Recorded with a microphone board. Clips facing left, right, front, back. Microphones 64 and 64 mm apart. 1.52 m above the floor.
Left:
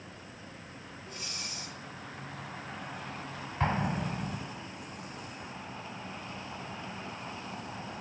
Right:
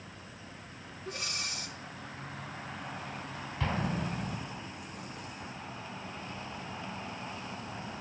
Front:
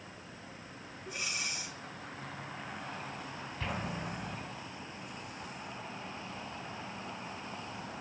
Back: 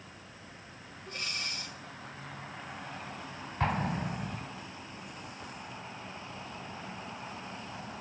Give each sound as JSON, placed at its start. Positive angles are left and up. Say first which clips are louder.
{"t": 1.1, "sound": "breathing", "louder": "right 6 dB, even", "azimuth_deg": -80, "distance_m": 1.8}
{"t": 3.6, "sound": "an explosion", "louder": "left 3 dB, back 7 dB", "azimuth_deg": 140, "distance_m": 3.0}